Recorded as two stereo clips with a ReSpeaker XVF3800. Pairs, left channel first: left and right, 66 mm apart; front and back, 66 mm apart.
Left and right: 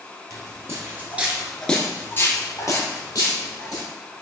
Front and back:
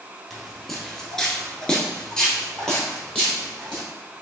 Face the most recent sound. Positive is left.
turn(degrees=80)